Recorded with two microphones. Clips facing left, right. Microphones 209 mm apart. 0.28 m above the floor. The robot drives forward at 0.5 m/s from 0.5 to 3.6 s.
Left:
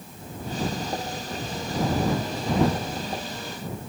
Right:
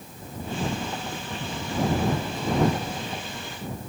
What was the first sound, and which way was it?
Only background noise.